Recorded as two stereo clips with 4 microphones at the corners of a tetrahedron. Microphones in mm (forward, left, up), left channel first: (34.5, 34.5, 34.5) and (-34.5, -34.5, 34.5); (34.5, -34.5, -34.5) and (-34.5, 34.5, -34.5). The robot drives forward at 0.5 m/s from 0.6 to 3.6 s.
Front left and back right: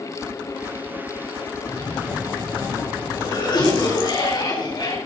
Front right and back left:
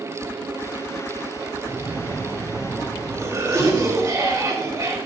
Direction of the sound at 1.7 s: 70° left.